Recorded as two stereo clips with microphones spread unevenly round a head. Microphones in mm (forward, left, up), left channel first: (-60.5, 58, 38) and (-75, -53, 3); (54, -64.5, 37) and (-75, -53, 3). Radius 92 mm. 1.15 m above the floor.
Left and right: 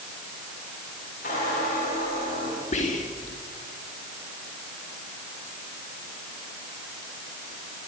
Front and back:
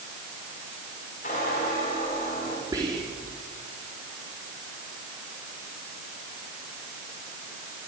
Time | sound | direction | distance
1.2 | a squeak | 45° left | 9.5 m
2.7 | whispering | 105° left | 2.5 m